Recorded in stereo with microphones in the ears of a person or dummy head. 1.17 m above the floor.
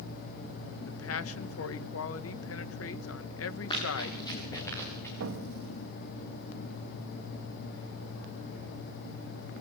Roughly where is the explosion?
Right.